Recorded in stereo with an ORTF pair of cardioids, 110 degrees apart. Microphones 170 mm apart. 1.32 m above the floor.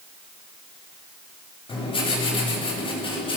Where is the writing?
30° left, 8 m.